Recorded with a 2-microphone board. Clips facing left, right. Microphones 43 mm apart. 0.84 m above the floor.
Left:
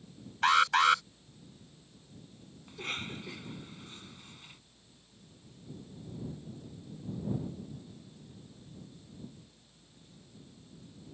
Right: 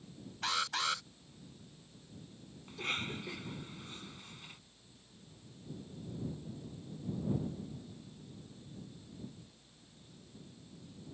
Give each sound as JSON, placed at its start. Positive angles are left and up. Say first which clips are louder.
{"t": 0.4, "sound": "an alarm", "louder": "left 11 dB", "side_deg": 50}
{"t": 2.7, "sound": "a cough", "louder": "right 1 dB", "side_deg": -5}